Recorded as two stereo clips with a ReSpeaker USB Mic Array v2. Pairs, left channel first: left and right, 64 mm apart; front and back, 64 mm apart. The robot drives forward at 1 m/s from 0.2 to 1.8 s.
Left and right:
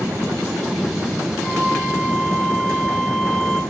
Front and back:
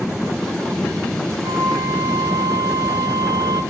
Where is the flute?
Straight behind, 3.5 m.